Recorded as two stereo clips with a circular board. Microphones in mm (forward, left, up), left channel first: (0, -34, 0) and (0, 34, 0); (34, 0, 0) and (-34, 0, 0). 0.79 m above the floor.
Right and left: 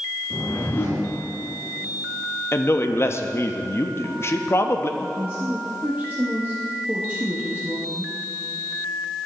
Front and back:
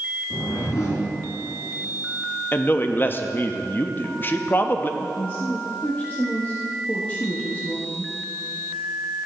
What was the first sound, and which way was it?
A whoosh, 35° right.